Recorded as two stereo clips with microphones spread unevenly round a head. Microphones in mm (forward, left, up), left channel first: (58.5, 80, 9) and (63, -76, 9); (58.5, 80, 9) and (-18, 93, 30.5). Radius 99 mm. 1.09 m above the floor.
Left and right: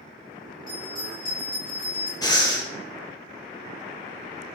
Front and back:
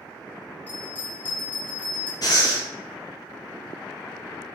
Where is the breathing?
30° left, 0.8 m.